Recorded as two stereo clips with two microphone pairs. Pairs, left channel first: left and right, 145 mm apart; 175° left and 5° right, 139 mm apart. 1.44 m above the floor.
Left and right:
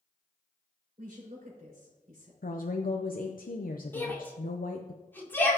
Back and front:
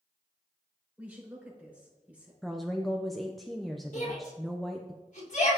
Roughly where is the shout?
Behind.